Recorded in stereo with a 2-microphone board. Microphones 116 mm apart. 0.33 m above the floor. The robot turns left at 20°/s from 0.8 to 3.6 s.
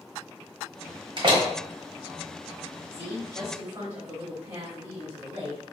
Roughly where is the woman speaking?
Right.